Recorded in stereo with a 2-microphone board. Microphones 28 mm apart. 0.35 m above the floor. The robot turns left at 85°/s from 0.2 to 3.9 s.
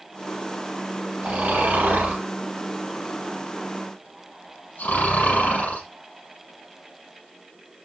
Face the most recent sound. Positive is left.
turn(degrees=85)